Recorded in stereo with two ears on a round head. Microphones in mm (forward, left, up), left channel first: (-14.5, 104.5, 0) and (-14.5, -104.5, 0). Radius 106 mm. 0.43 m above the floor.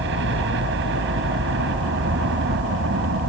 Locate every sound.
0.0 s a helicopter: 55° right (ahead or behind)